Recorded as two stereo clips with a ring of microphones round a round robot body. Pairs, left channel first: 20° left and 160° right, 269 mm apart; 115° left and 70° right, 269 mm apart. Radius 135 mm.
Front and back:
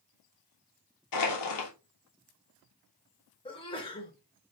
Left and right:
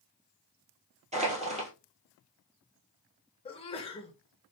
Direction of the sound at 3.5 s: 70° left.